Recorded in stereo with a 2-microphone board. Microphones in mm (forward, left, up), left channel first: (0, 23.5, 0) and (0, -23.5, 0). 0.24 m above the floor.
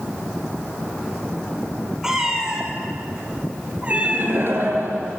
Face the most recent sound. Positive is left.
turn(degrees=-55)  # may be behind; listen again after turning